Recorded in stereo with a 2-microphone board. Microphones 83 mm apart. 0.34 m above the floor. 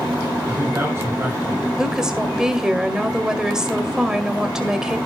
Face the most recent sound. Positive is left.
turn(degrees=-5)  # may be behind; listen again after turning